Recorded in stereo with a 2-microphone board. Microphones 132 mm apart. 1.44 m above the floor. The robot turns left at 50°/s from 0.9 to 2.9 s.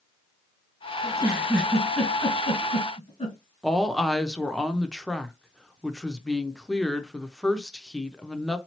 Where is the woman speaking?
5° left (ahead or behind), 0.6 m.